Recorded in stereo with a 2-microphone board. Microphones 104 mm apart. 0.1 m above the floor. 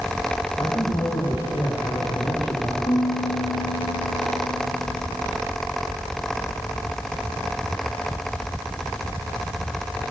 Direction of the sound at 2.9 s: 60° left (ahead or behind).